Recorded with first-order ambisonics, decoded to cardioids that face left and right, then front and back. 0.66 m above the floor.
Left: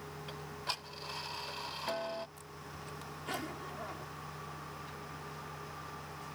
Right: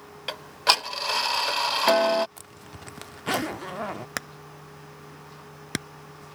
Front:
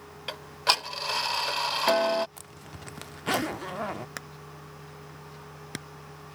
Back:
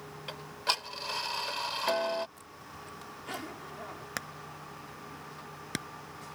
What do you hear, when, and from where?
0.3 s ticking: 65° right
2.4 s a zipper: 45° right
4.2 s hammering: 95° right